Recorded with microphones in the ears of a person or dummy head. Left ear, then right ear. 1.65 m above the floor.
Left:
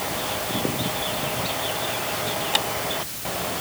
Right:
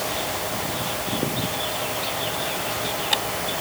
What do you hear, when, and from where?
Only background noise.